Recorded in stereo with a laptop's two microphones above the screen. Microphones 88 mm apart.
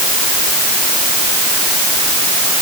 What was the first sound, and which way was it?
Only background noise.